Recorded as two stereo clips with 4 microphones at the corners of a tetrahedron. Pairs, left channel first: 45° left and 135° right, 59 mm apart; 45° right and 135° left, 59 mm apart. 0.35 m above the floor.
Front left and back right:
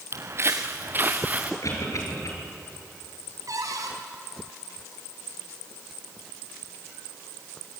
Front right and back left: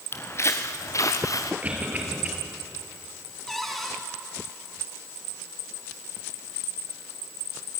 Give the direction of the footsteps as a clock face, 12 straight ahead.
3 o'clock.